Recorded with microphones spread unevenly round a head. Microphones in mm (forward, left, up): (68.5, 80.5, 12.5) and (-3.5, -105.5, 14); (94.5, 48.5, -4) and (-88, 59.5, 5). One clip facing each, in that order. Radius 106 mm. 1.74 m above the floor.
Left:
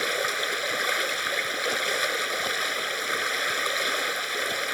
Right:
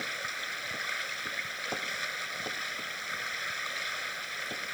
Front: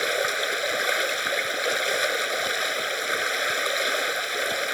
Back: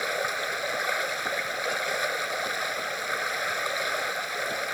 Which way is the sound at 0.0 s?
50° left.